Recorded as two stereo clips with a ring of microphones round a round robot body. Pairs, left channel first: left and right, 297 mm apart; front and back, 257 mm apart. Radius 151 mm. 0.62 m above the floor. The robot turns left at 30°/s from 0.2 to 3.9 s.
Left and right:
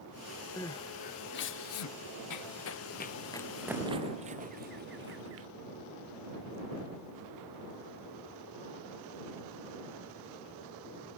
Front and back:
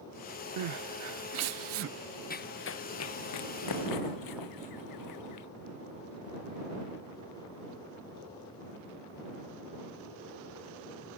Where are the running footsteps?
60° left; by 5.5 s 40° right.